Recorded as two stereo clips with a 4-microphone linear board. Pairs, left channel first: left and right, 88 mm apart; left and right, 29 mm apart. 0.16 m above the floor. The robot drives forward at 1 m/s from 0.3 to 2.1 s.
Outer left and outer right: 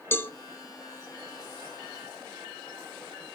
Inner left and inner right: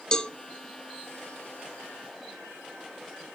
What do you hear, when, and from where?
0.1 s a cowbell: 25° left (ahead or behind), 0.9 m